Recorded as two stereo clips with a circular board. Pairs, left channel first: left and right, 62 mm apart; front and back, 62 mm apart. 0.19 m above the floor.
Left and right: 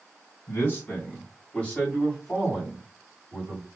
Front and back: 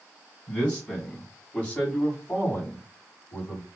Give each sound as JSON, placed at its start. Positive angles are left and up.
{"t": 0.5, "sound": "a man speaking", "azimuth_deg": 75, "distance_m": 1.9}